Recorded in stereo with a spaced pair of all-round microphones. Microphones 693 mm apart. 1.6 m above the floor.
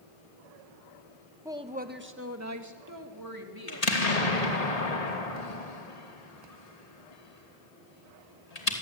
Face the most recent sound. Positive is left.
turn(degrees=60)  # may be behind; listen again after turning